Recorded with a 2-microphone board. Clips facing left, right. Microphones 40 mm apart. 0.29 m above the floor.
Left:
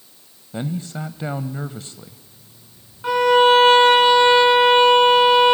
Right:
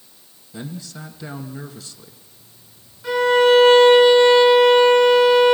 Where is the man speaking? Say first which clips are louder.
Left 6 dB; 40° left (ahead or behind), 1.2 m.